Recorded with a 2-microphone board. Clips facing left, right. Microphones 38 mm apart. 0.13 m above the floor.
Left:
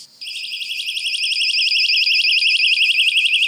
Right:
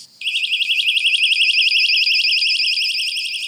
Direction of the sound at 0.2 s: 45° right (ahead or behind).